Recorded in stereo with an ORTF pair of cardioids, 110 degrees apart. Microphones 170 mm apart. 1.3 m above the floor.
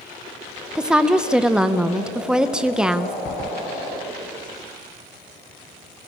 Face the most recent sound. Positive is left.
turn(degrees=-5)